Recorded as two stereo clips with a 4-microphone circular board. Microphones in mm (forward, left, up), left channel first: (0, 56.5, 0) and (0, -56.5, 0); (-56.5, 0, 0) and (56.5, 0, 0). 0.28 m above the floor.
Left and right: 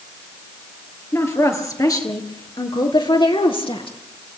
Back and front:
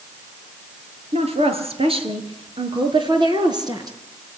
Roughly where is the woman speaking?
Ahead left.